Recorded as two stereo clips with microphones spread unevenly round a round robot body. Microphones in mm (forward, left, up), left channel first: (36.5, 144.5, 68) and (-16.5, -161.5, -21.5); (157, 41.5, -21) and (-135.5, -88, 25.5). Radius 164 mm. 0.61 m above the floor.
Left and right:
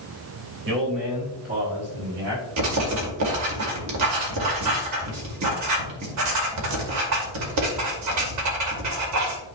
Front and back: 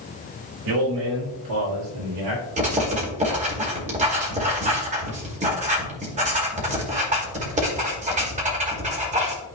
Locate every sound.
0.7 s a man speaking: 145° right, 3 m; by 2.4 s 135° right, 5 m
2.6 s writing: 85° right, 2 m